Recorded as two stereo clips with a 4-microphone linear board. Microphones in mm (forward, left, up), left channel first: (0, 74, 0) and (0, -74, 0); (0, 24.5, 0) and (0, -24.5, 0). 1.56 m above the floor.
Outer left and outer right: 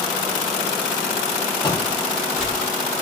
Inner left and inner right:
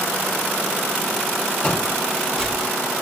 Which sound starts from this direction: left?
Footsteps, at 1.6 s.